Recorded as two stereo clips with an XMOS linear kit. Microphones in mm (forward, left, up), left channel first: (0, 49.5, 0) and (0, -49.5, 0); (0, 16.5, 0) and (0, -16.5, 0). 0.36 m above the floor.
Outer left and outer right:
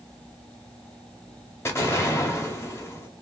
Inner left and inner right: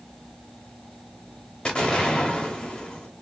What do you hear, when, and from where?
1.6 s an explosion: 25° left (ahead or behind), 0.8 m